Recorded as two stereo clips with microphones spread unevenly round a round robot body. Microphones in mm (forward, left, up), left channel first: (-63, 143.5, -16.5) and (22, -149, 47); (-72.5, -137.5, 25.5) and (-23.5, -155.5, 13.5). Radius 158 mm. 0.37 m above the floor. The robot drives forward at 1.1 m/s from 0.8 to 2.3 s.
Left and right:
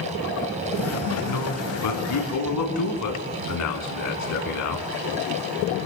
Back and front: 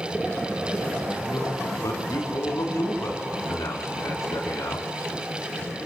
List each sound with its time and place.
1.2 s a man speaking: 110° left, 4 m; by 4.9 s 125° left, 4.5 m